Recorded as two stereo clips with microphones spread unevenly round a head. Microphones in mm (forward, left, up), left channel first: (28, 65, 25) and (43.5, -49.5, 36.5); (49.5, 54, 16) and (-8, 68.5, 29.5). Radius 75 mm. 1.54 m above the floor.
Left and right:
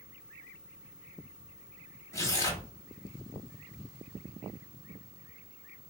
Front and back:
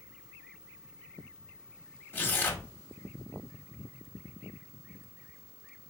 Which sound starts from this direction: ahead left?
Tearing paper, at 2.1 s.